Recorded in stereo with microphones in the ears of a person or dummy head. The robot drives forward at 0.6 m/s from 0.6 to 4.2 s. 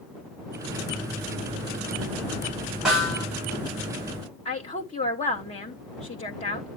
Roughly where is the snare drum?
Centre.